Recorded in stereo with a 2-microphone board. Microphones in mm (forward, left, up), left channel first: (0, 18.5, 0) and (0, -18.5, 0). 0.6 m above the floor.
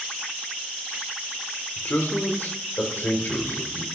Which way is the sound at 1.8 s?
60° left (ahead or behind).